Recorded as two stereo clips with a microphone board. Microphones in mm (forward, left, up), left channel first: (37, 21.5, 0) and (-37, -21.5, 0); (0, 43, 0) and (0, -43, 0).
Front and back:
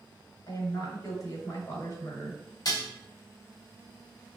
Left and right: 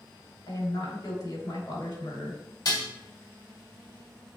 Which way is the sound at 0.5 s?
65° left.